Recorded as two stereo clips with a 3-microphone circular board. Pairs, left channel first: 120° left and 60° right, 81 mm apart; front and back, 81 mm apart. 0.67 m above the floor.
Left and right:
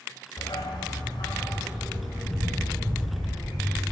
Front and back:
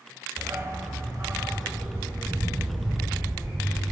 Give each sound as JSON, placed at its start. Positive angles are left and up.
{"t": 0.4, "sound": "a dog barking", "azimuth_deg": 130, "distance_m": 0.8}